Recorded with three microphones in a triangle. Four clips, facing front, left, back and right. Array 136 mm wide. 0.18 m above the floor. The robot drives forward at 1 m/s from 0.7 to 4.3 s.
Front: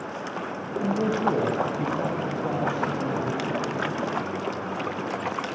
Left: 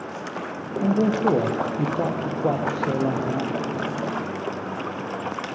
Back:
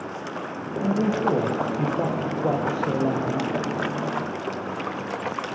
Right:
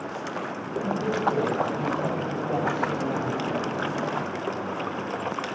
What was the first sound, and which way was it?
A man speaking, 95° left.